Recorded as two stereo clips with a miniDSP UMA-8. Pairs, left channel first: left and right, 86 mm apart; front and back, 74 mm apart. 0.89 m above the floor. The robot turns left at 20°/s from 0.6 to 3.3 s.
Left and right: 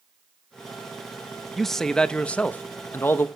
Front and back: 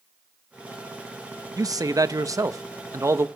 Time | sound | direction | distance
1.6 | a man speaking | 175° left | 0.8 m